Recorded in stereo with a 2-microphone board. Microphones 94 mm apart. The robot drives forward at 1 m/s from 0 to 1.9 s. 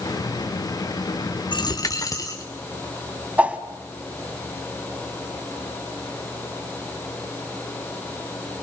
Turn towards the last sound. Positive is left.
turn(degrees=-15)  # may be behind; listen again after turning